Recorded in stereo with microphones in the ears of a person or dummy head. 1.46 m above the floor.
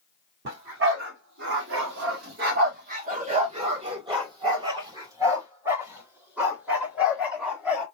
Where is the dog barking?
60° right (ahead or behind), 1.7 m; by 7.8 s 5° right (ahead or behind), 3 m.